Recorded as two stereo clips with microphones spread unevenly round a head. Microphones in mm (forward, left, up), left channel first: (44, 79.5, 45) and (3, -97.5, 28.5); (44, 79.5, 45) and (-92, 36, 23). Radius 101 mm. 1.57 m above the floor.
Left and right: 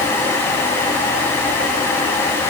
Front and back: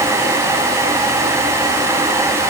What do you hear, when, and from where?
Only background noise.